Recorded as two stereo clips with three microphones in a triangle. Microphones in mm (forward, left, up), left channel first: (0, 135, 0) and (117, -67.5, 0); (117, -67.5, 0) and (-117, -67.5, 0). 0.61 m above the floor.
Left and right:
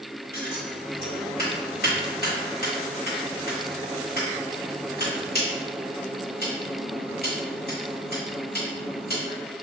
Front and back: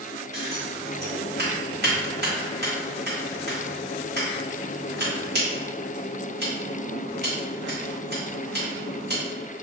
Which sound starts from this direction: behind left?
Scissors, at 0.3 s.